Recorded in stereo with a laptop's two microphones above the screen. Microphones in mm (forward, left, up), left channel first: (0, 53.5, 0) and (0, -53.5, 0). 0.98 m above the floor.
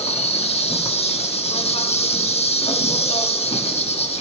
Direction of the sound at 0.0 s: 70° left (ahead or behind).